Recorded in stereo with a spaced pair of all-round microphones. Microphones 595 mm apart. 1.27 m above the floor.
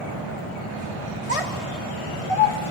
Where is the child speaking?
65° left (ahead or behind), 1.9 m; by 2.7 s 60° left (ahead or behind), 1.0 m.